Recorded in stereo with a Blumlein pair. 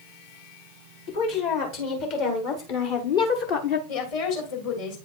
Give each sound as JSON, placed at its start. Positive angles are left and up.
{"t": 1.1, "sound": "a woman speaking", "azimuth_deg": 50, "distance_m": 2.5}
{"t": 3.9, "sound": "a woman speaking", "azimuth_deg": 50, "distance_m": 2.5}